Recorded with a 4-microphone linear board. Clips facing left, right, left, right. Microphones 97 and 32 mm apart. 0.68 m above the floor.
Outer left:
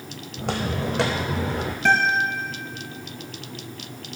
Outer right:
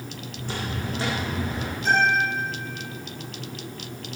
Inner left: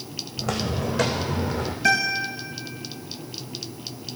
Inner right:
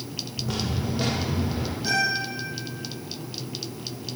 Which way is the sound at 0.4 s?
75° left (ahead or behind).